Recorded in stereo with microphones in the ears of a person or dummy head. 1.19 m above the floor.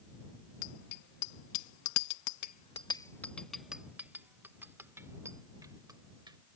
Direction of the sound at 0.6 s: 60° left (ahead or behind).